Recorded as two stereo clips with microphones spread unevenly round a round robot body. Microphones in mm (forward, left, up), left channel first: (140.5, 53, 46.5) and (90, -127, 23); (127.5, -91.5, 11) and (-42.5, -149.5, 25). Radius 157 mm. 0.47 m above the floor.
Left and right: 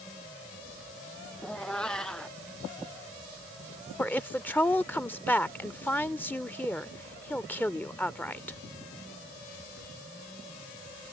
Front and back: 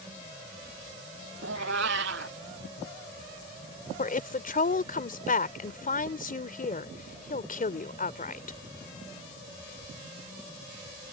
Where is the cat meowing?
160° left.